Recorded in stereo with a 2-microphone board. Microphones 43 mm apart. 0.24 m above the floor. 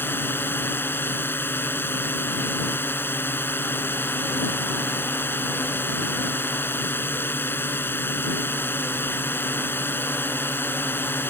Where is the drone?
55° left (ahead or behind).